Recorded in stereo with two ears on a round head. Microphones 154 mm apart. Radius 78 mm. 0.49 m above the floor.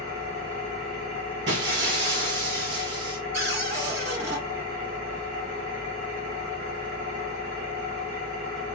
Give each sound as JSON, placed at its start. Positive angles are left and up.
{"t": 0.0, "sound": "an engine running", "side_deg": -60, "distance_m": 2.0}
{"t": 1.5, "sound": "breaking glass", "side_deg": -65, "distance_m": 2.0}
{"t": 3.3, "sound": "a cupboard door", "side_deg": -65, "distance_m": 2.5}